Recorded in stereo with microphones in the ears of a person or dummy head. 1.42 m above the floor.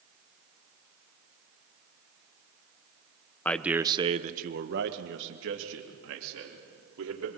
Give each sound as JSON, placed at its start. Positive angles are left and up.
{"t": 3.5, "sound": "a man speaking", "side_deg": 15, "distance_m": 1.1}